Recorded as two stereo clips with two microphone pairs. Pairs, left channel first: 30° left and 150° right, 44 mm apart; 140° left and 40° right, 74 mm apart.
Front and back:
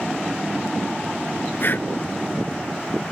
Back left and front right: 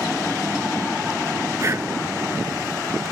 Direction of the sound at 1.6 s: Straight ahead.